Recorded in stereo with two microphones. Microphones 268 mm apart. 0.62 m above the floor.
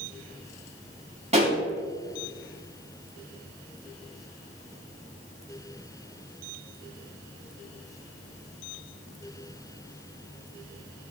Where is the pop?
25° right (ahead or behind), 4.5 m.